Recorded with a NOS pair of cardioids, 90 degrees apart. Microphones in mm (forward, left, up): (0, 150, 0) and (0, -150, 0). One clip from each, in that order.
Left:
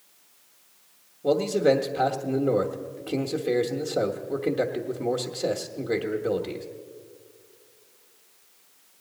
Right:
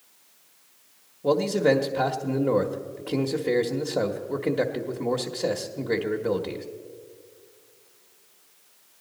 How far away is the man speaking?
About 0.9 m.